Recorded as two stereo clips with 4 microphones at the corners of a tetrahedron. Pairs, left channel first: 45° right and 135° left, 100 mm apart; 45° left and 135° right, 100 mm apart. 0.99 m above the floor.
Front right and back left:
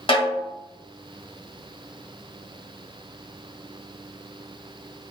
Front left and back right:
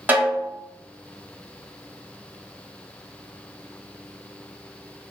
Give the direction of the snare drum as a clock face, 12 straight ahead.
2 o'clock.